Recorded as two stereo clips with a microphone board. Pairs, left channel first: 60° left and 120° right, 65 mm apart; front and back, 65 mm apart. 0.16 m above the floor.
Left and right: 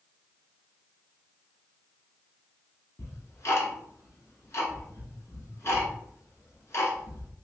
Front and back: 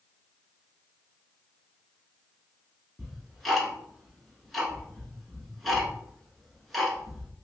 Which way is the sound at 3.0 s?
90° left.